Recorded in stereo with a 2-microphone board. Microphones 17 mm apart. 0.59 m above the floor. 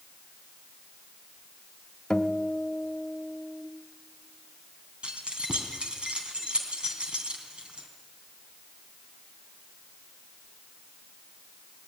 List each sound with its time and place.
2.1 s a guitar: 45° left (ahead or behind), 1.3 m
5.0 s keys jangling: 75° right (ahead or behind), 3 m